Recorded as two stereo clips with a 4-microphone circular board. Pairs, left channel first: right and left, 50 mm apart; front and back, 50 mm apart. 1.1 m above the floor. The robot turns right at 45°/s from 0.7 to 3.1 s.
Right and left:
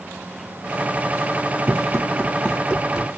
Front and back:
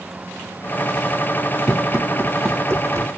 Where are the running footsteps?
100° left, 3 m; by 3.1 s straight behind, 3 m.